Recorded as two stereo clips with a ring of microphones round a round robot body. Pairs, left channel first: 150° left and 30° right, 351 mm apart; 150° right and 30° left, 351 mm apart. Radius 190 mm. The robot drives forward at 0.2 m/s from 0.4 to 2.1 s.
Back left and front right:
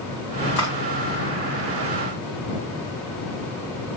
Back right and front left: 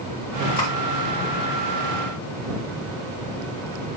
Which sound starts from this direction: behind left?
Cutlery clinking, at 0.6 s.